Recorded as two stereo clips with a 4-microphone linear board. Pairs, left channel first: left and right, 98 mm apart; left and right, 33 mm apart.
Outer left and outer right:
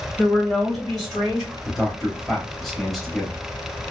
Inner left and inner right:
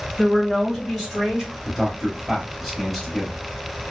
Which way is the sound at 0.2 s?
20° left (ahead or behind).